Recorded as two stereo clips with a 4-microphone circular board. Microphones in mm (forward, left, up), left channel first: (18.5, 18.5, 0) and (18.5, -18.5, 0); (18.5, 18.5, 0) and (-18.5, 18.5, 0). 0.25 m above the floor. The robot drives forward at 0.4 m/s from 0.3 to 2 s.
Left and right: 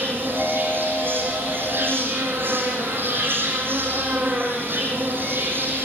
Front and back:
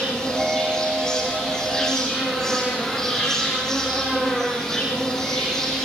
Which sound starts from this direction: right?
An insect, at 0.0 s.